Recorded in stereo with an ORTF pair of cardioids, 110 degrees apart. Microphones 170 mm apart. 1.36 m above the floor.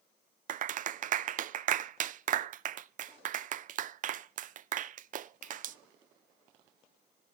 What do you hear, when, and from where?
0.5 s a clap: 50° right, 0.5 m